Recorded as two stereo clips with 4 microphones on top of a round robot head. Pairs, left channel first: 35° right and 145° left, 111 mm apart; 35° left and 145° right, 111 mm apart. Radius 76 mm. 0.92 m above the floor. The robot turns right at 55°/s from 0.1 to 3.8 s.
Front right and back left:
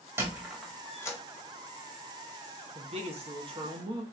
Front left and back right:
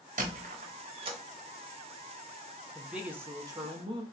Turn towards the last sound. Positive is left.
turn(degrees=-175)